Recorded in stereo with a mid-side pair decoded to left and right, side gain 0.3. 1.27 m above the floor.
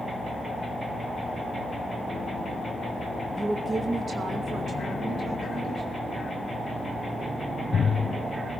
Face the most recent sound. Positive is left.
turn(degrees=-75)